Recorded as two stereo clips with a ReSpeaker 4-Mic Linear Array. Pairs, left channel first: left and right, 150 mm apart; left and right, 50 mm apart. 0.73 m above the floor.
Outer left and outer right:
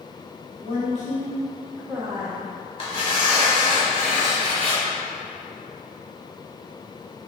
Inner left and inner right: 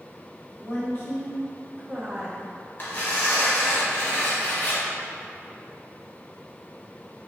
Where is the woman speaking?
60° left (ahead or behind), 1.4 m; by 2.4 s 50° right (ahead or behind), 0.8 m.